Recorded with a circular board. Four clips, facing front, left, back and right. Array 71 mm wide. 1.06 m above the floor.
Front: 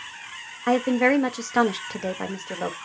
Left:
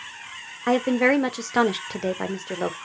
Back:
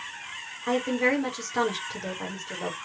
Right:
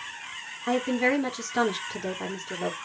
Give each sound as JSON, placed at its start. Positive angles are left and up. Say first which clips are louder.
{"t": 0.7, "sound": "a woman speaking", "louder": "left 5 dB, front 5 dB", "azimuth_deg": 60, "distance_m": 1.2}